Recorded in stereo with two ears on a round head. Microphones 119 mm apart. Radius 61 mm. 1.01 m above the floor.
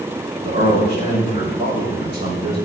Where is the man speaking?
45° right (ahead or behind), 7 m.